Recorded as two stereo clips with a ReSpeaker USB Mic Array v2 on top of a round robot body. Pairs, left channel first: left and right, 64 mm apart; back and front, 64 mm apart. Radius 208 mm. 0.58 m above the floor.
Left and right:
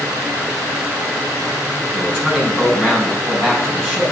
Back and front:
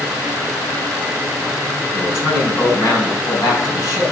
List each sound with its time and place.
1.9 s a man speaking: 170° right, 5.5 m